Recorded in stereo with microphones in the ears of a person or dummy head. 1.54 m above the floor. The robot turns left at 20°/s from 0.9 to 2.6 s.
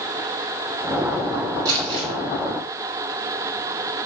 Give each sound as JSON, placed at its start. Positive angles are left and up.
{"t": 1.6, "sound": "crumpling", "side_deg": -15, "distance_m": 2.5}